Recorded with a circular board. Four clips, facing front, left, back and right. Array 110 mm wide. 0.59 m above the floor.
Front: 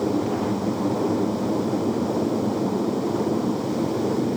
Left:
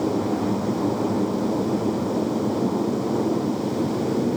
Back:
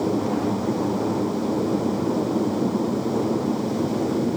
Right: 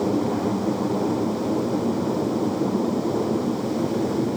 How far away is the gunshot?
I don't hear a gunshot.